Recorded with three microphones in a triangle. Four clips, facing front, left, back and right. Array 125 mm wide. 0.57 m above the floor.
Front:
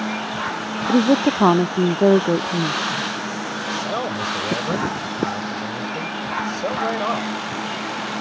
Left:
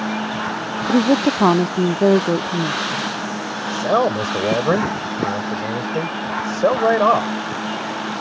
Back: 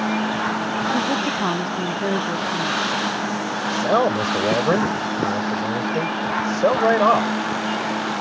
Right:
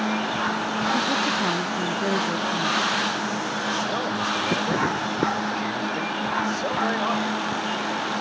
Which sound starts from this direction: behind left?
A man speaking, at 3.7 s.